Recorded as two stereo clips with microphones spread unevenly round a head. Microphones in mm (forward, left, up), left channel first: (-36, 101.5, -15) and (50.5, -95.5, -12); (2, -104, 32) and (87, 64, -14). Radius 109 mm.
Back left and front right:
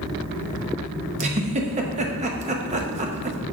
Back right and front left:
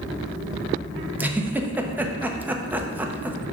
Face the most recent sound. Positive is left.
turn(degrees=-10)